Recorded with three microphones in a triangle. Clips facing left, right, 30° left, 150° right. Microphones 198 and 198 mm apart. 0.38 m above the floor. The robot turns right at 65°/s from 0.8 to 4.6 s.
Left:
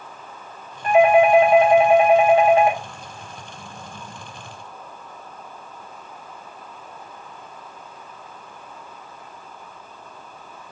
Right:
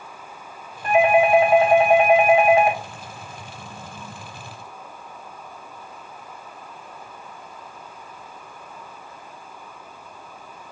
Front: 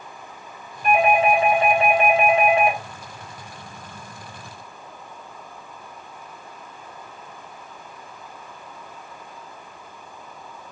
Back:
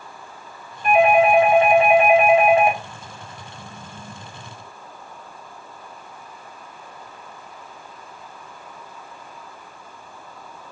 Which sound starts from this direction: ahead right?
A doorbell, at 0.8 s.